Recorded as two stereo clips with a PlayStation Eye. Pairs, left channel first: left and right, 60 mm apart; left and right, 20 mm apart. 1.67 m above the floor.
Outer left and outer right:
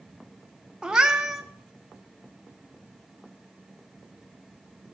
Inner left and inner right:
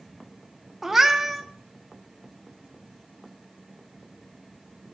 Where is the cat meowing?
10° right (ahead or behind), 0.9 m.